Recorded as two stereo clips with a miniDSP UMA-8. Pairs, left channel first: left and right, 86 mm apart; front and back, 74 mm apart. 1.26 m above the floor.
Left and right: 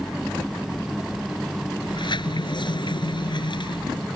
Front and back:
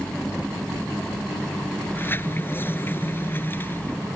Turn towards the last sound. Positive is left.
turn(degrees=60)